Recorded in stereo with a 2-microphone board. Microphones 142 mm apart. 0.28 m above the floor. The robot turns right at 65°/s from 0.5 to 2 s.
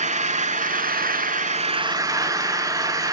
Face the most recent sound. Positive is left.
turn(degrees=-25)